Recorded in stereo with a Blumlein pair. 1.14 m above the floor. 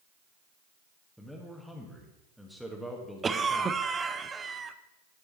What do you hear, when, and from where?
1.2 s a man speaking: straight ahead, 1.6 m
3.2 s a cough: 15° right, 0.7 m